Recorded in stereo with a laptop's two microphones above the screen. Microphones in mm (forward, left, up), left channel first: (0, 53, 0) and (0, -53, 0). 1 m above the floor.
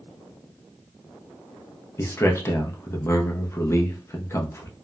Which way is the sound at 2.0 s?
25° left (ahead or behind).